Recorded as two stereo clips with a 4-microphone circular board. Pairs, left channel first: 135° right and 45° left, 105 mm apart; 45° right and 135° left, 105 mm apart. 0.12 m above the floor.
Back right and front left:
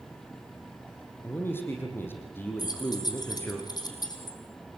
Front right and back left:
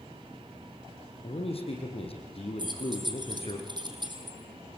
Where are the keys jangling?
175° left, 4 m.